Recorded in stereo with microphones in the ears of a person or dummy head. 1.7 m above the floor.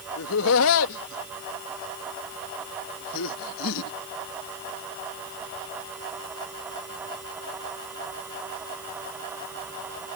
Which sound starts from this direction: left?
Laughter, at 0.2 s.